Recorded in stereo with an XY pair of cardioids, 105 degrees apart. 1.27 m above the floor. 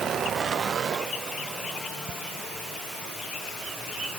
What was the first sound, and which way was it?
Ticking, 60° right.